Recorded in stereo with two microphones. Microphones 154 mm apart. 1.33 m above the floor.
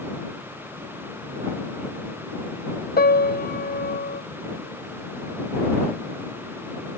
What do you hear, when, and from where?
3.0 s a piano: 80° left